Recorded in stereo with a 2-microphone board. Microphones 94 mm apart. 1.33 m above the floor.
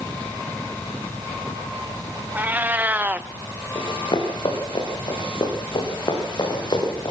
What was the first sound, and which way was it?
A cat meowing, 20° right (ahead or behind).